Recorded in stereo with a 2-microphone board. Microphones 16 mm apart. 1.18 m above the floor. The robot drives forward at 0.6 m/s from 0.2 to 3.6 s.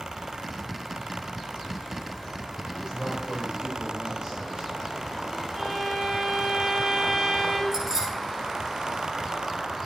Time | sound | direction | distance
2.6 | a man speaking | 85° right | 5.5 m
5.5 | a violin | 30° right (ahead or behind) | 4.5 m
7.7 | keys jangling | 40° right (ahead or behind) | 7 m